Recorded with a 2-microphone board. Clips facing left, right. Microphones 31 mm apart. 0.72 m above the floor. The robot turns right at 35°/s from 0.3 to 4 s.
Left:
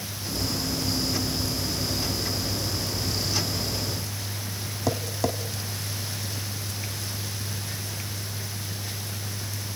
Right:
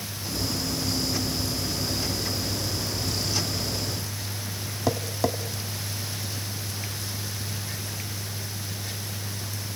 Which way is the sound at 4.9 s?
5° right (ahead or behind).